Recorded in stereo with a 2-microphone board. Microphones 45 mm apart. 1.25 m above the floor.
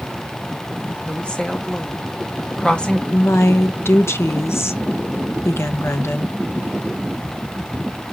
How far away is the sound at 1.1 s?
About 2.5 m.